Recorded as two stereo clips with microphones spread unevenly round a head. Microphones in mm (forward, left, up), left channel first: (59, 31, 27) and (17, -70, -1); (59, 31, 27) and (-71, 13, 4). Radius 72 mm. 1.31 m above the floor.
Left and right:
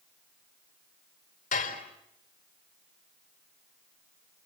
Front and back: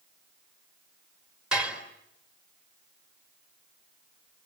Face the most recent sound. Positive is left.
turn(degrees=105)